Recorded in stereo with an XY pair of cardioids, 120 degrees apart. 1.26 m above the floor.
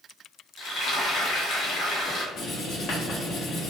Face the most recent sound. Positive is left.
turn(degrees=65)